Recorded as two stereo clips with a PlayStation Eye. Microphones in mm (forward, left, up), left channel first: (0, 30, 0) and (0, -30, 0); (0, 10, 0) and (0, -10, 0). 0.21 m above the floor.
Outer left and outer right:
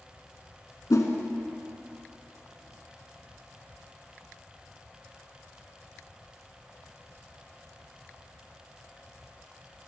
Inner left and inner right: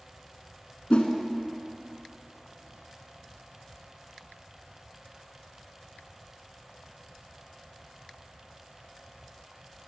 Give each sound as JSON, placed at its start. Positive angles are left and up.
{"t": 0.9, "sound": "a whoosh", "side_deg": 65, "distance_m": 0.9}